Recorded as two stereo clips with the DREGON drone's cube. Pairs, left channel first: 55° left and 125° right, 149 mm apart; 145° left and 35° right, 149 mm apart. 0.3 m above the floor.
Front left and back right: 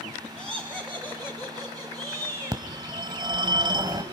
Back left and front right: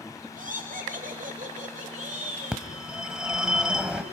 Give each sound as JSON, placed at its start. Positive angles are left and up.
{"t": 0.4, "sound": "laughter", "azimuth_deg": -40, "distance_m": 2.5}
{"t": 2.5, "sound": "a phone ringing", "azimuth_deg": -115, "distance_m": 1.1}